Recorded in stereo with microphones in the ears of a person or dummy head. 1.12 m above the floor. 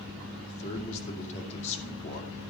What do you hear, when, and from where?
0.5 s a man speaking: 35° left (ahead or behind), 2.5 m